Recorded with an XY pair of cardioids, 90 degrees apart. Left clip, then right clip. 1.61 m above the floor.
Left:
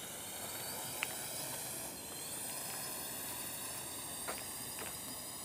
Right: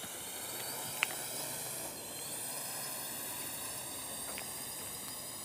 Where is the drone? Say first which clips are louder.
Right 2 dB; 20° right.